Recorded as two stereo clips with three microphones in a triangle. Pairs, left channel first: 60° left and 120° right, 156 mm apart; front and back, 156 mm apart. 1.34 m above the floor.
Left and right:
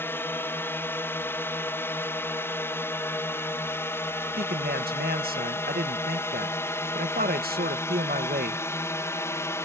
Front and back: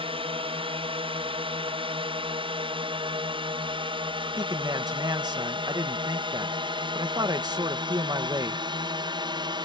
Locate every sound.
0.0 s a drone: 135° left; by 9.7 s 130° left
4.4 s a man speaking: 120° right